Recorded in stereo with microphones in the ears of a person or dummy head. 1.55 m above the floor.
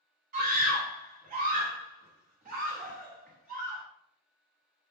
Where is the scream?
40° right (ahead or behind), 0.8 m.